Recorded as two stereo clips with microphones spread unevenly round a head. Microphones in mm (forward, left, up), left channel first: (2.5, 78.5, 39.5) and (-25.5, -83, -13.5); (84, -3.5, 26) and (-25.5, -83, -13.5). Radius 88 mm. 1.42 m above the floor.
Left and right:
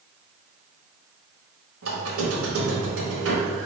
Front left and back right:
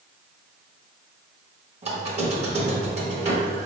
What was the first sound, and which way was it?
A squeak, 100° right.